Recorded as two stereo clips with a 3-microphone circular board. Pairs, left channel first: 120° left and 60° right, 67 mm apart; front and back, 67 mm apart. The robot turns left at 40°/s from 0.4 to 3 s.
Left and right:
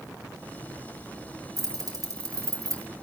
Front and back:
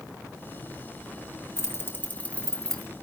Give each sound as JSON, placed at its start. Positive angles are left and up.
{"t": 1.6, "sound": "keys jangling", "azimuth_deg": -40, "distance_m": 1.3}